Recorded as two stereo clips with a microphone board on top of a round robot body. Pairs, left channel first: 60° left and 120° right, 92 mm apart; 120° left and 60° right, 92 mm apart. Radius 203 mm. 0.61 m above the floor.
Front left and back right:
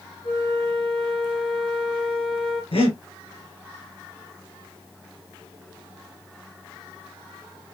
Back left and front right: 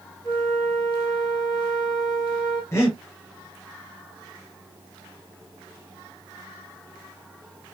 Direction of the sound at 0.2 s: 80° left.